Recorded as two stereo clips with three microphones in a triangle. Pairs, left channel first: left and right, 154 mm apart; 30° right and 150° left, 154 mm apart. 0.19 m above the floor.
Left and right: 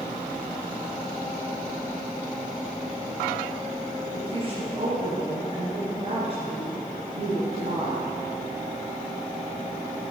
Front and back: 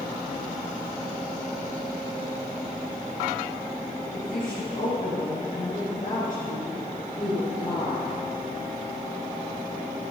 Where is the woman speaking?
45° right, 3 m.